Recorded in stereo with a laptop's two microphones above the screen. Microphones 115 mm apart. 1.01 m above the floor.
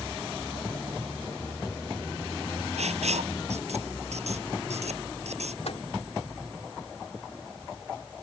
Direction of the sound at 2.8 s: 90° right.